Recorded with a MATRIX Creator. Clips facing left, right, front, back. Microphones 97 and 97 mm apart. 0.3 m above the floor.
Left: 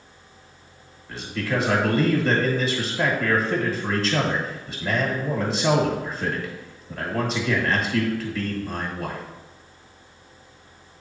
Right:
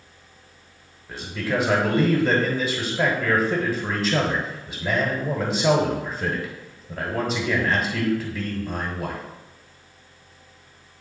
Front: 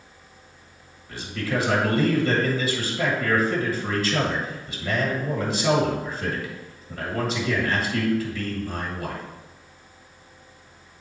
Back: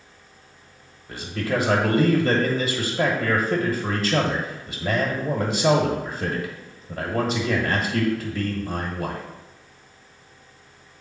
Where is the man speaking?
150° right, 1.3 m.